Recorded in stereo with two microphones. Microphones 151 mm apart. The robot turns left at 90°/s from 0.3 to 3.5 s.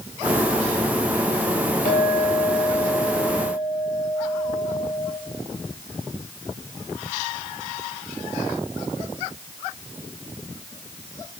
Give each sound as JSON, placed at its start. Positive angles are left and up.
{"t": 1.9, "sound": "a clink", "azimuth_deg": 90, "distance_m": 3.5}